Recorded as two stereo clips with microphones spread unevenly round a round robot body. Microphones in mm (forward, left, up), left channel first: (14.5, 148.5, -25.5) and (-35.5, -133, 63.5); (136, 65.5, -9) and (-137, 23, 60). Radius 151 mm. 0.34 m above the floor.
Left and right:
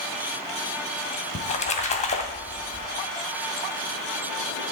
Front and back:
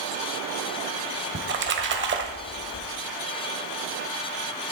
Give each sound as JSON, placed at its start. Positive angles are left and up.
{"t": 1.4, "sound": "a splash", "azimuth_deg": 135, "distance_m": 2.0}